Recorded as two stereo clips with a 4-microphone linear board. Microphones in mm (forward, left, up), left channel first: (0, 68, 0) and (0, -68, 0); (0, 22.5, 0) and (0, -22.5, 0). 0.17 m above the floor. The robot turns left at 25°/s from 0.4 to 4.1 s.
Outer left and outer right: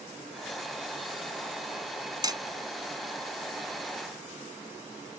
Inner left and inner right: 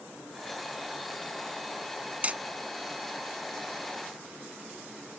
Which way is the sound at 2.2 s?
30° right (ahead or behind).